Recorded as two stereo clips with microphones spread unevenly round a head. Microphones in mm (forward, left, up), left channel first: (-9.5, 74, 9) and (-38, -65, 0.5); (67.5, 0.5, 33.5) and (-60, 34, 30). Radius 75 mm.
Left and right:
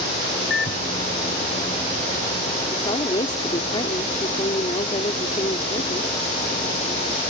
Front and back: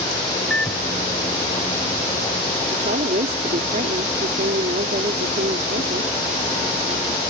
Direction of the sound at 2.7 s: 135° left.